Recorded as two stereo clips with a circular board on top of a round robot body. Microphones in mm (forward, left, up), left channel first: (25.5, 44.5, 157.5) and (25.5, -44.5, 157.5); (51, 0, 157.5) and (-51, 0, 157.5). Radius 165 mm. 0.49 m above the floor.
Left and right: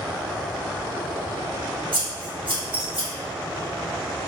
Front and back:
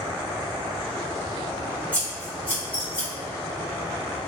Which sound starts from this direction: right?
Scissors, at 1.9 s.